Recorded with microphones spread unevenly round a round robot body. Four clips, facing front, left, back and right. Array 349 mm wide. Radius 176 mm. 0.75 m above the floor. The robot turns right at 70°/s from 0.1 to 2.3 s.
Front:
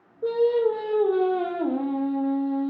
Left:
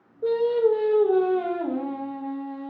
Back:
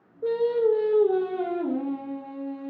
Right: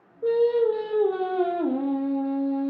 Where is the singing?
160° left, 0.6 m; by 2.7 s 55° right, 0.6 m.